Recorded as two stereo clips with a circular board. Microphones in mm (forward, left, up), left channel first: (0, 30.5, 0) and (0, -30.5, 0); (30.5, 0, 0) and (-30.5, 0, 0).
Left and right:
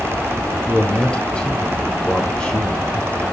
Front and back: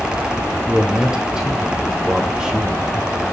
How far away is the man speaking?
About 1.1 m.